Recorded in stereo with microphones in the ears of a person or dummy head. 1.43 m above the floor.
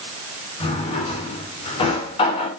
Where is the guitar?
No guitar in this recording.